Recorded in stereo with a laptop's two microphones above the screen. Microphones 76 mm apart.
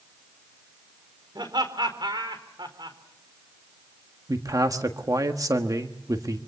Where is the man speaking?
55° right (ahead or behind), 1.4 m.